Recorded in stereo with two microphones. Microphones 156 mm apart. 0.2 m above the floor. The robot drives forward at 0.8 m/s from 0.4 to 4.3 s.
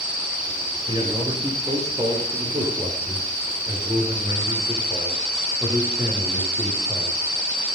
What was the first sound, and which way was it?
A man speaking, 30° right (ahead or behind).